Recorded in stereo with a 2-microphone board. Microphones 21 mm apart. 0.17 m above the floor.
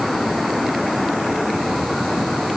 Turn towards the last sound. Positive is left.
No sound to turn to.